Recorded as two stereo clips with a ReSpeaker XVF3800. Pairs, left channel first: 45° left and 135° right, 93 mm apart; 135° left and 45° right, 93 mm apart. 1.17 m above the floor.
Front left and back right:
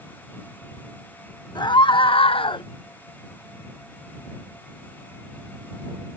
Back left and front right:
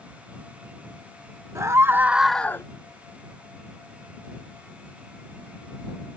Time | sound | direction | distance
1.6 | a scream | 10° left | ?